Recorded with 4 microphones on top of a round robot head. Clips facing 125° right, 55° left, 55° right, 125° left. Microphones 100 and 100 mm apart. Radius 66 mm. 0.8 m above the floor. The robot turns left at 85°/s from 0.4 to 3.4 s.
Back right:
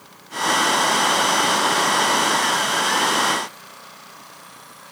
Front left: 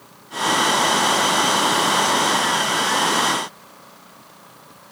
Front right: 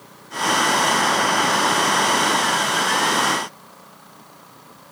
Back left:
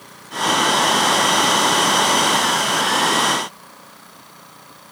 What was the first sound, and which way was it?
Only background noise.